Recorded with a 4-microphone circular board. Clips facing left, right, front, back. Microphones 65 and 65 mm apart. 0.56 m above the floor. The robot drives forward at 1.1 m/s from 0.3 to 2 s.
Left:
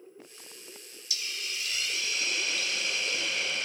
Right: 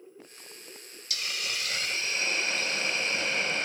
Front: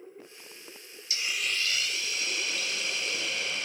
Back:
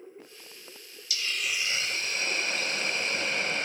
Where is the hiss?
55° right, 0.7 m; by 3.7 s 140° right, 0.8 m.